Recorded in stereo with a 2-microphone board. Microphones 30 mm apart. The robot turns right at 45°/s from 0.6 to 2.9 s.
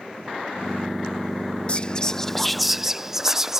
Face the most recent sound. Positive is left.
turn(degrees=-165)